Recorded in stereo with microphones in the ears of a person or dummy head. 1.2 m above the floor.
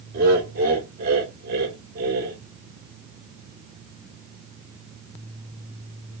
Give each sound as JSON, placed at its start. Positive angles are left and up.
{"t": 0.1, "sound": "laughter", "side_deg": -55, "distance_m": 1.7}